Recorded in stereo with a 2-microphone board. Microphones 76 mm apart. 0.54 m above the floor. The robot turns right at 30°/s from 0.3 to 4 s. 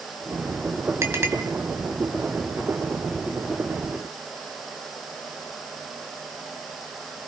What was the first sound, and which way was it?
A clink, 40° right (ahead or behind).